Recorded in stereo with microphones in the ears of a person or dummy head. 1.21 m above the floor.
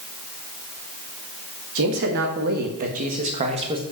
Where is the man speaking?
60° right (ahead or behind), 1.9 m; by 3.8 s 25° right (ahead or behind), 1.3 m.